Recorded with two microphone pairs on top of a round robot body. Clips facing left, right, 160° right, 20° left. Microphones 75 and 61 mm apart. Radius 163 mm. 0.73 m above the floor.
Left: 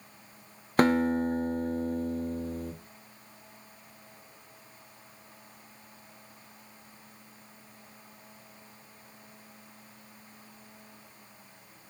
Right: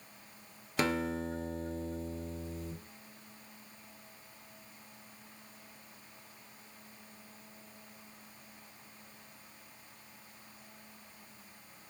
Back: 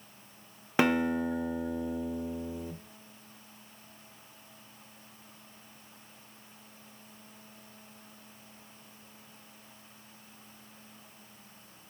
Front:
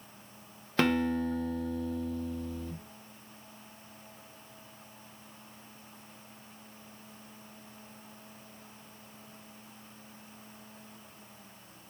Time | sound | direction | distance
0.8 | a guitar | 125° left | 1.0 m